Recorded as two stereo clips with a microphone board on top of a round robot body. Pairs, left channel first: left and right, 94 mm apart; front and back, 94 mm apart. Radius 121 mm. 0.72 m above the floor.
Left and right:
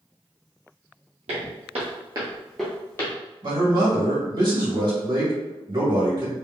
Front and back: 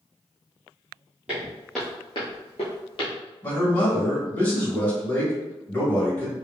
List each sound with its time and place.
1.3 s footsteps: 100° right, 1.4 m; by 3.1 s 30° left, 1.3 m
3.4 s a man speaking: 70° right, 1.9 m